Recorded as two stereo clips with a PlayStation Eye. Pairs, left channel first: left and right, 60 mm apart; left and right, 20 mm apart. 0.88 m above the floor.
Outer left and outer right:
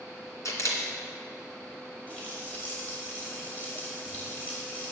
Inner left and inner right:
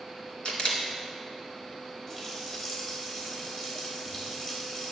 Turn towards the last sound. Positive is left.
turn(degrees=25)  # may be behind; listen again after turning